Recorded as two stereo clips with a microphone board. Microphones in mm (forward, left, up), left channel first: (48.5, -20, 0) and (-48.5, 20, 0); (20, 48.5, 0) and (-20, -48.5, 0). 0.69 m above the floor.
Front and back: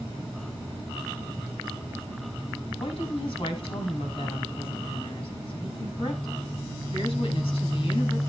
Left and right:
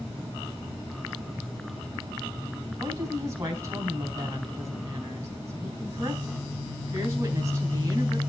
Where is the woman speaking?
50° right, 4 m.